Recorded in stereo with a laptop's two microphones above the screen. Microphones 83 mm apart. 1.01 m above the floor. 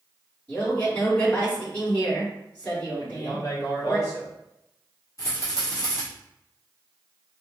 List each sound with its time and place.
0.5 s a man speaking: 20° left (ahead or behind), 2.0 m
3.0 s a man speaking: 50° left (ahead or behind), 1.6 m
5.2 s a rattle: 40° left (ahead or behind), 1.8 m